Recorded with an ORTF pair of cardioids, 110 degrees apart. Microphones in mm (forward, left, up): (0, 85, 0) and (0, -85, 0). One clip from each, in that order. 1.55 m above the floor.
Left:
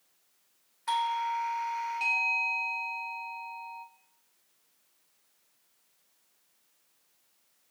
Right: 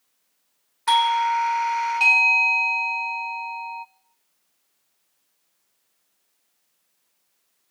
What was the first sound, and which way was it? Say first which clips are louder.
A doorbell: right 10 dB; 60° right.